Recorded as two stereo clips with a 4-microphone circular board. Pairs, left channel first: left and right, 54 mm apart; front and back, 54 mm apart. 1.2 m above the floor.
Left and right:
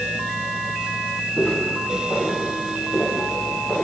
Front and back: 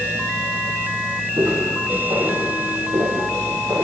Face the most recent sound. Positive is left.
turn(degrees=170)